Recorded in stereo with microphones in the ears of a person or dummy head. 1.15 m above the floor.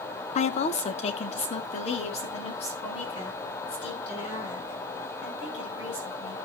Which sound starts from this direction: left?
A woman speaking, at 0.3 s.